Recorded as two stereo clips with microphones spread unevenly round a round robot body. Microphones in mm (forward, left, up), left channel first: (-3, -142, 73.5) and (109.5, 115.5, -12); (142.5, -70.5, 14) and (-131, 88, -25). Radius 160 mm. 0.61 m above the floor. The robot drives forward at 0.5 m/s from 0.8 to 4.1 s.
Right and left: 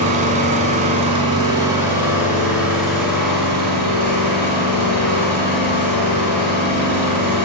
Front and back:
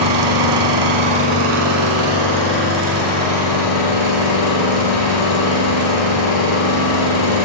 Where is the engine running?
140° left, 1.2 m; by 7.5 s 165° left, 2.5 m.